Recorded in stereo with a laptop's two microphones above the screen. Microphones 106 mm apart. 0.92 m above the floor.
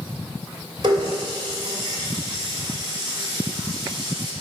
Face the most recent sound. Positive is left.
turn(degrees=-40)  # may be behind; listen again after turning